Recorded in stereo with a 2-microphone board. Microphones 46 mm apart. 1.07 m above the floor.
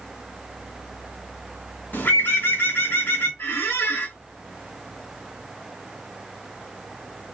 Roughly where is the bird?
Left.